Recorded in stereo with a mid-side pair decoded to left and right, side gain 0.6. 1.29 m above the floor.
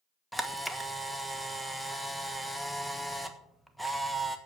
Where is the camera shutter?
Straight ahead, 1.3 m.